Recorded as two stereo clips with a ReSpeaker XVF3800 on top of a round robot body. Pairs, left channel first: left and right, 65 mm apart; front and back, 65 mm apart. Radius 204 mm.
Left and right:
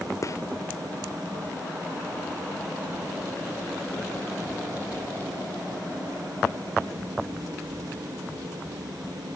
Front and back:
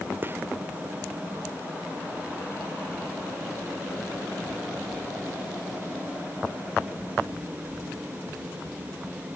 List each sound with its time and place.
0.2 s a gunshot: 125° left